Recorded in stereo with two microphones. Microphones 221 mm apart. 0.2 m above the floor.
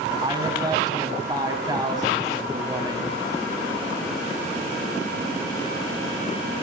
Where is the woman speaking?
20° right (ahead or behind), 1.2 m.